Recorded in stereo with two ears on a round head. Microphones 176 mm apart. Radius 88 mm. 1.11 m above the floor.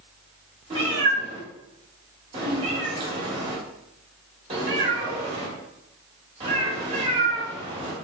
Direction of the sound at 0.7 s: 25° right (ahead or behind).